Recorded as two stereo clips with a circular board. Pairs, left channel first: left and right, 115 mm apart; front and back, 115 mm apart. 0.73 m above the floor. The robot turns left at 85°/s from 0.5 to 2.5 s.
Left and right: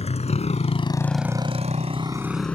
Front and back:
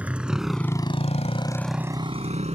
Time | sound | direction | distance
0.0 | a motorcycle | 105° left | ?